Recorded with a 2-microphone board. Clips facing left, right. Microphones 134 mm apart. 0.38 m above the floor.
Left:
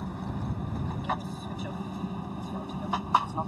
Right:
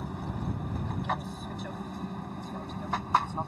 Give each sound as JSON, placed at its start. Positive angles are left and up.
{"t": 0.0, "sound": "an aircraft", "side_deg": 0}